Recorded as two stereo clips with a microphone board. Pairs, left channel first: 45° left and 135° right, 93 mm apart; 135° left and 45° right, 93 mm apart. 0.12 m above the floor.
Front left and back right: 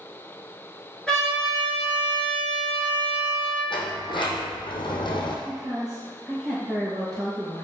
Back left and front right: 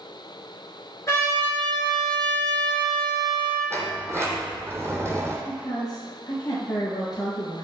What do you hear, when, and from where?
1.1 s a trumpet: 125° left, 1.9 m
3.7 s a sliding door: 15° left, 0.7 m
5.5 s a woman speaking: 140° left, 1.8 m